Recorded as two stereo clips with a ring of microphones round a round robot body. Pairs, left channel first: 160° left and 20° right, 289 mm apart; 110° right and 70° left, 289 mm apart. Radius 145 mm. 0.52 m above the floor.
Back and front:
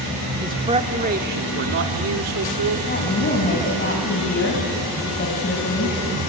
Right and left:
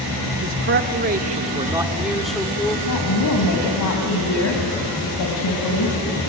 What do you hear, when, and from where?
0.4 s a man speaking: 50° left, 1.5 m; by 2.8 s 35° right, 1.7 m
2.9 s a woman speaking: 145° right, 3 m